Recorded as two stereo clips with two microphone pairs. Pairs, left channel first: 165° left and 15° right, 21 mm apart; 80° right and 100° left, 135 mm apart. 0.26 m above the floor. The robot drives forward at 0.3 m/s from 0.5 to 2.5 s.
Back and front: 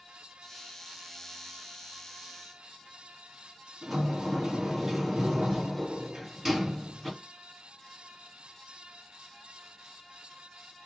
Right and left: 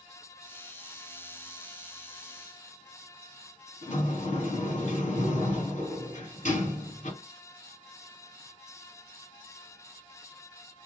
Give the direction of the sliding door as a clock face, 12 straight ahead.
3 o'clock.